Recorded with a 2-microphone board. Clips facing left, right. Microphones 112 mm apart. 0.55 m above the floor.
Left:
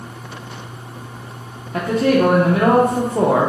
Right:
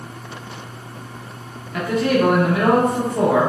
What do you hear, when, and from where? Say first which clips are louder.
1.7 s a man speaking: left 3 dB; 35° left (ahead or behind), 0.7 m